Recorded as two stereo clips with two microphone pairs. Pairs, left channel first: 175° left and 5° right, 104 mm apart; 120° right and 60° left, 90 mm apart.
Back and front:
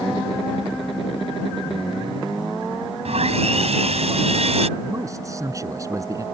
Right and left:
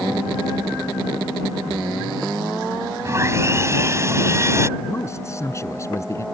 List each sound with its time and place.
3.0 s sawing: straight ahead
4.8 s a man speaking: 65° right